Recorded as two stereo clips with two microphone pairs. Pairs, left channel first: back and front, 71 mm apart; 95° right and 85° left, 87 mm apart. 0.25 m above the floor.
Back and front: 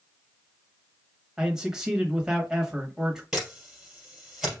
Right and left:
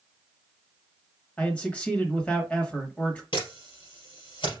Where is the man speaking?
60° right, 1.0 m.